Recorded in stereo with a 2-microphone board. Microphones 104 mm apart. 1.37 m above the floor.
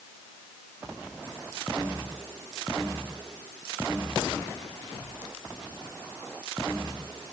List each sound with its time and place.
Only background noise.